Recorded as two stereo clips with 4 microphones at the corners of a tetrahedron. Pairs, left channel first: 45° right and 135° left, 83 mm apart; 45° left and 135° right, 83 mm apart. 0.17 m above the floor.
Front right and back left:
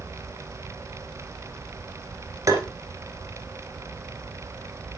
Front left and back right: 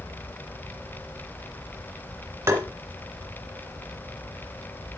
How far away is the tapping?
About 2 m.